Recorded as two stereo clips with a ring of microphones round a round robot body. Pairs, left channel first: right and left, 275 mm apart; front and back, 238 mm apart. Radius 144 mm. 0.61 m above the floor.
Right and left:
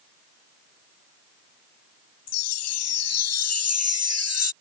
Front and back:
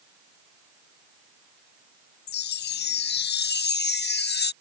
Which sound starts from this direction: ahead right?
A chime, at 2.3 s.